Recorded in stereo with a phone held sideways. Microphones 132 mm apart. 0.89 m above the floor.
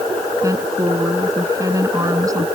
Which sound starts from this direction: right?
A woman speaking, at 0.4 s.